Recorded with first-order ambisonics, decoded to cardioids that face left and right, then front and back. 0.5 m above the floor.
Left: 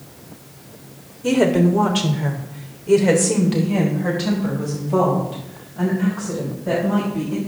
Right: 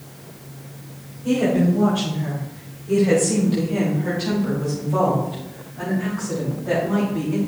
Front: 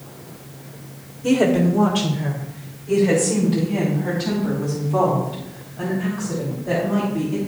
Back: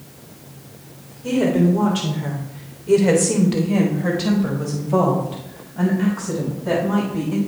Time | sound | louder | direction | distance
1.2 | a woman speaking | left 3 dB, front 1 dB | 70° left | 2 m